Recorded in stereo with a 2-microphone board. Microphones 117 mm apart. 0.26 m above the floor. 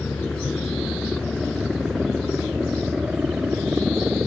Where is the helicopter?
5° left (ahead or behind); by 4.3 s 10° right (ahead or behind).